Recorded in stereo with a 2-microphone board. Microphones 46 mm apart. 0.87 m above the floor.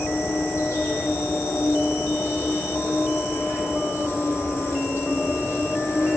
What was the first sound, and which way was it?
An insect, 80° left.